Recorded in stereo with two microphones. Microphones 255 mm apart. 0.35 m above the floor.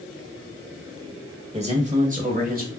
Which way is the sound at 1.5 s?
25° right (ahead or behind).